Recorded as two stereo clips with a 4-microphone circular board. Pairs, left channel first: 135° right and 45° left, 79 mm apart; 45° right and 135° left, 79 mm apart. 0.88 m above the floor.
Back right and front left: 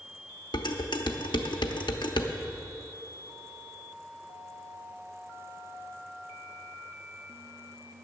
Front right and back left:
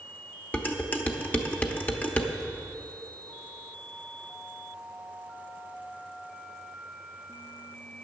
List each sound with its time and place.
0.5 s dishes clattering: 115° right, 0.9 m